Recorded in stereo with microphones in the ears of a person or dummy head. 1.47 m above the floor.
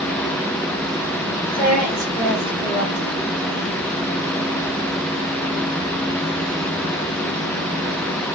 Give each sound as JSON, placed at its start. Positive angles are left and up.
{"t": 1.5, "sound": "a woman speaking", "side_deg": 15, "distance_m": 1.2}